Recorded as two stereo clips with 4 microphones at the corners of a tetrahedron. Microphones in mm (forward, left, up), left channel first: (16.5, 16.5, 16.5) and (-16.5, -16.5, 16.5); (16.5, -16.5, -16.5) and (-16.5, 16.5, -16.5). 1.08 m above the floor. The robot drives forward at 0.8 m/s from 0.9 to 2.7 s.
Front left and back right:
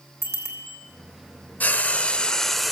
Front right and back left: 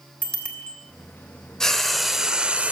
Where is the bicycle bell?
20° left, 3.5 m.